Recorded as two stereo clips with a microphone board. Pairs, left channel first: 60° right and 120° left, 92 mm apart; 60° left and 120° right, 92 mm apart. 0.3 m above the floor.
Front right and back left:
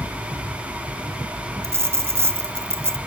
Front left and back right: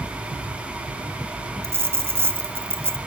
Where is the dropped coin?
Straight behind, 0.6 m.